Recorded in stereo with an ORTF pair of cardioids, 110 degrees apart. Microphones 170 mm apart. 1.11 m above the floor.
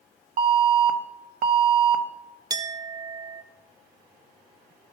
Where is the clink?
25° right, 0.5 m.